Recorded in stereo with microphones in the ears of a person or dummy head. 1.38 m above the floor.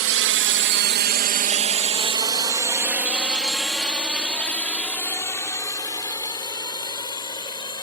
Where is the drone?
60° right (ahead or behind); by 7.8 s 30° left (ahead or behind).